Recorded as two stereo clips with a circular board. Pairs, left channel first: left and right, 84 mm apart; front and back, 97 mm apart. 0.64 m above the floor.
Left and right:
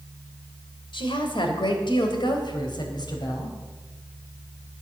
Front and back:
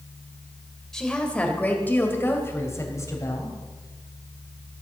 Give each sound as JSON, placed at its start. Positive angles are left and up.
{"t": 0.9, "sound": "a woman speaking", "azimuth_deg": 85, "distance_m": 2.5}